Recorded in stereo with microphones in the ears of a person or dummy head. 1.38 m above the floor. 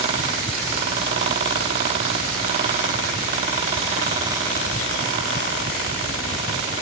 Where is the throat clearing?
No throat clearing in this recording.